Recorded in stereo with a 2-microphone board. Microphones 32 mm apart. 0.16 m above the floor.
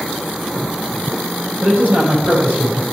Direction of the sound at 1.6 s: 70° right (ahead or behind).